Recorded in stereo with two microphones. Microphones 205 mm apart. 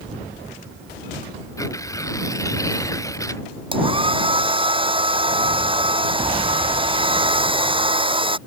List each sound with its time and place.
1.6 s tearing paper: 15° left (ahead or behind)
3.7 s a hair dryer: 25° right (ahead or behind)